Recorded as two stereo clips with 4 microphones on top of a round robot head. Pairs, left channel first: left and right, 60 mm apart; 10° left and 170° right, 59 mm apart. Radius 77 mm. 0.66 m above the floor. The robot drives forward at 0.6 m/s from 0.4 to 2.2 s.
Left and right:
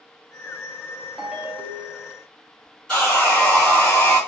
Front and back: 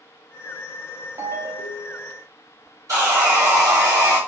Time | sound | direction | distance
1.2 | a ringtone | 170° right | 0.6 m
2.9 | sawing | 170° left | 1.7 m